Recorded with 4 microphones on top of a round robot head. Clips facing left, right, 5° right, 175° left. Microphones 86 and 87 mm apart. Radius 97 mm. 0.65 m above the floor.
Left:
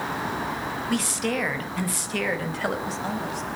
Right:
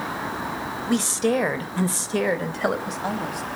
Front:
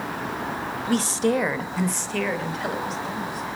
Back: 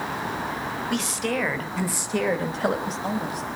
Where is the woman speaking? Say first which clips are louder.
Right 6 dB, front 7 dB; 35° right, 1.5 m; by 3.5 s 165° right, 2 m.